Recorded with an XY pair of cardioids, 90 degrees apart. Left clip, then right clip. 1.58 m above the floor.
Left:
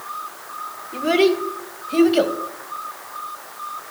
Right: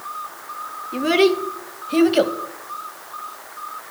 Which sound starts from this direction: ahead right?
A child speaking, at 0.9 s.